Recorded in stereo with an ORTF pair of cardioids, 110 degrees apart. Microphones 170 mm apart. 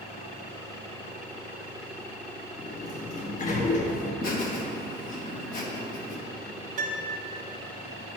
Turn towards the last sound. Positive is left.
turn(degrees=-50)